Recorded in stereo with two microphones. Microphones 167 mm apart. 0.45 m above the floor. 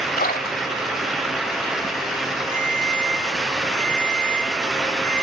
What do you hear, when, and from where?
0.2 s a splash: 60° left (ahead or behind), 1.8 m
2.5 s a ringtone: 60° left (ahead or behind), 8 m